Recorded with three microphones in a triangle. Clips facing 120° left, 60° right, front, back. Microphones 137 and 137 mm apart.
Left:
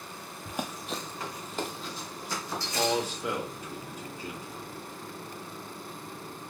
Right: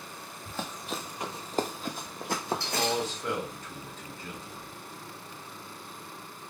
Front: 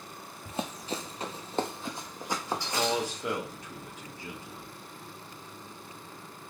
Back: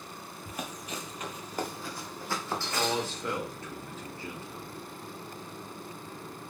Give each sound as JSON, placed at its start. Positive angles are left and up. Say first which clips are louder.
{"t": 0.5, "sound": "running footsteps", "louder": "left 2 dB, front 5 dB", "azimuth_deg": 55, "distance_m": 0.6}
{"t": 2.5, "sound": "a man speaking", "louder": "left 3 dB, front 1 dB", "azimuth_deg": 55, "distance_m": 0.9}